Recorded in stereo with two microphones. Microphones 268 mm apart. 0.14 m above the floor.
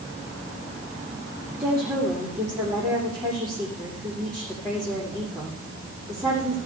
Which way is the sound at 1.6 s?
10° right (ahead or behind).